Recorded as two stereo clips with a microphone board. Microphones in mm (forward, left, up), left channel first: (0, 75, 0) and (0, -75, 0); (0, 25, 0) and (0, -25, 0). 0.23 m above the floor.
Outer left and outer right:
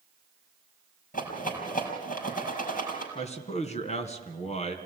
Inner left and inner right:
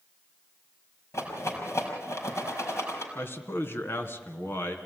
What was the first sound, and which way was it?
A rattle, 65° left (ahead or behind).